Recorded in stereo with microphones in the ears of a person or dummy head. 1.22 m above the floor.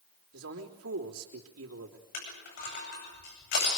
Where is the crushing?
70° left (ahead or behind), 9 m.